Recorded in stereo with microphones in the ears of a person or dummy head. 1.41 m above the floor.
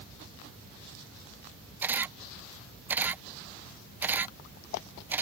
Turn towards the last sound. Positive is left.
turn(degrees=-10)  # may be behind; listen again after turning